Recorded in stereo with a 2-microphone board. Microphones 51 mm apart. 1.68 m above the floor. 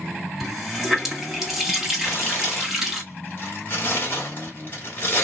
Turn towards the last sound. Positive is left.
turn(degrees=45)  # may be behind; listen again after turning